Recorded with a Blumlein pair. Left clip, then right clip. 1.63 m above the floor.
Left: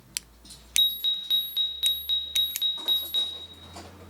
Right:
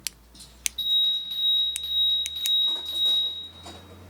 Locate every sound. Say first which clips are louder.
0.8 s an alarm: right 1 dB; 45° left, 0.5 m